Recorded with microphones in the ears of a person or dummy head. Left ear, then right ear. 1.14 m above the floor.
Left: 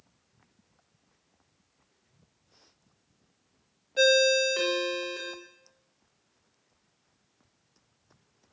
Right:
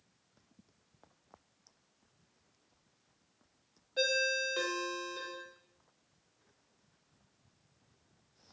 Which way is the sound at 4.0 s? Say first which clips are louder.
Left 10 dB; 10° left (ahead or behind).